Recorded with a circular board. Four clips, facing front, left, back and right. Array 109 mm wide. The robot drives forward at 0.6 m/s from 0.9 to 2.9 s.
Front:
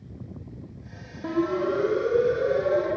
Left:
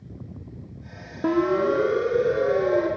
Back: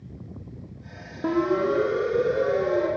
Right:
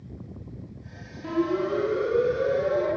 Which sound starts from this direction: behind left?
A siren, at 1.2 s.